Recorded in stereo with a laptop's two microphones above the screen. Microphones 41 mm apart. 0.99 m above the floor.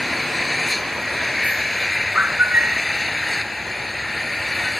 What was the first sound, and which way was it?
An engine running, centre (ahead or behind).